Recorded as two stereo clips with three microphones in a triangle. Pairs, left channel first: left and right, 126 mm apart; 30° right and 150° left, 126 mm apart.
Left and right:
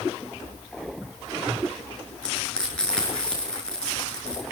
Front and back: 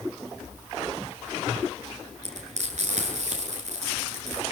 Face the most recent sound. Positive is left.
turn(degrees=175)